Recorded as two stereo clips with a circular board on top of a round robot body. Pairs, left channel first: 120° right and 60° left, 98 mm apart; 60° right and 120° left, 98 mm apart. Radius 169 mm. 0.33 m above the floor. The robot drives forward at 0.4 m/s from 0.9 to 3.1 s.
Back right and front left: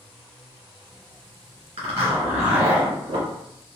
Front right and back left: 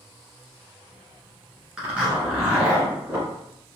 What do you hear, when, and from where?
1.8 s a zipper: 40° left, 2 m; by 3.3 s 50° left, 1.7 m